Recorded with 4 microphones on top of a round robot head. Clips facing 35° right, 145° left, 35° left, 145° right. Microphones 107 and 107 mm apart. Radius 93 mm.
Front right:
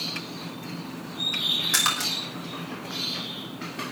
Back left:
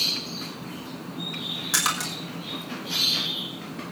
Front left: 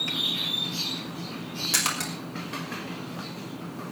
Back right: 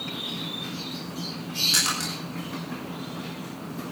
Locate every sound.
1.7 s a splash: 65° left, 6 m